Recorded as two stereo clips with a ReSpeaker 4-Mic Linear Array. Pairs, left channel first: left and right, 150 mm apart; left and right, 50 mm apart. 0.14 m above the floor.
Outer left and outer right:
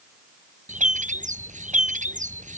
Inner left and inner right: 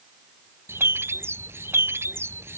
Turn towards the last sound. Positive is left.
turn(degrees=-55)  # may be behind; listen again after turning